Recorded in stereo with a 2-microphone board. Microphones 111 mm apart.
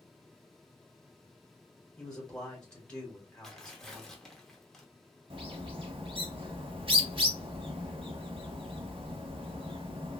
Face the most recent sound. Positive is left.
turn(degrees=-55)  # may be behind; listen again after turning